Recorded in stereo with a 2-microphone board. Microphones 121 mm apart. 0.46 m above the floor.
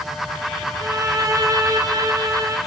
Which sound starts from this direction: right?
A violin, at 0.8 s.